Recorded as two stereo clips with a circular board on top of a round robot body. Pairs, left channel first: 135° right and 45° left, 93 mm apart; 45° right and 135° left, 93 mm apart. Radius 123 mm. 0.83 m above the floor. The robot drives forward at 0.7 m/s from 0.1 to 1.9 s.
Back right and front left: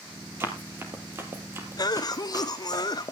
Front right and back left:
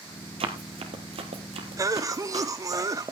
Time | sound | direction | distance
0.4 | running footsteps | 110° left | 1.4 m
1.8 | a cough | 175° right | 0.5 m